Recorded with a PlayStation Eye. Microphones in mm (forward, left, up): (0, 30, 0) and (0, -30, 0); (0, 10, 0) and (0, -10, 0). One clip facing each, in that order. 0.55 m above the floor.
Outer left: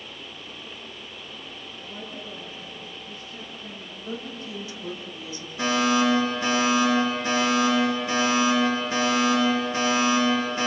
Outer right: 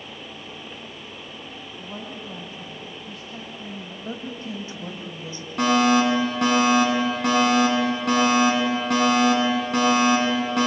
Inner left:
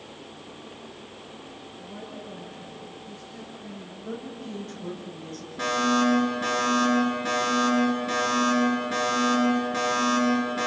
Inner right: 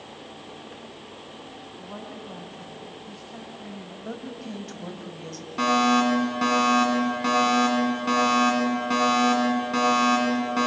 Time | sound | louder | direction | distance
1.8 | a woman speaking | outer right 2 dB, inner right 1 dB | 65° right (ahead or behind) | 4 m
4.0 | a woman speaking | outer right 1 dB, even | 30° right (ahead or behind) | 3 m
5.6 | a fire alarm | outer right 4 dB, inner right 3 dB | 60° right (ahead or behind) | 8 m